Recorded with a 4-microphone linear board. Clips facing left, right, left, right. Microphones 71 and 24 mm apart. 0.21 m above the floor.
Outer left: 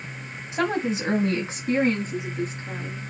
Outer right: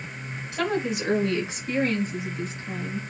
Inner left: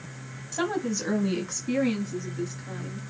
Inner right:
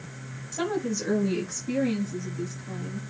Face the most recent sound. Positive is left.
turn(degrees=50)  # may be behind; listen again after turning